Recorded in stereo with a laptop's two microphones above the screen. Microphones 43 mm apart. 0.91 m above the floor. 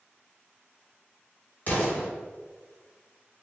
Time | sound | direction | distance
1.7 | an explosion | 40° left (ahead or behind) | 1.7 m